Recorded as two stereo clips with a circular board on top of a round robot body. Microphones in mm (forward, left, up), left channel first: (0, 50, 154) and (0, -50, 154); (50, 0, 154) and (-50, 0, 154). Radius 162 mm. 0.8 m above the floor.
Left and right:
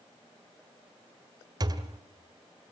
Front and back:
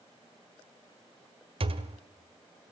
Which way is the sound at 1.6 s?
145° right.